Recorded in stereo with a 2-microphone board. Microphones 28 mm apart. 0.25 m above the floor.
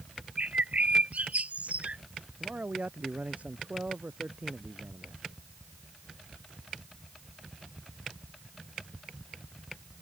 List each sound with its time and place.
0.4 s a bird: 60° right (ahead or behind)
2.4 s a man speaking: 60° right (ahead or behind)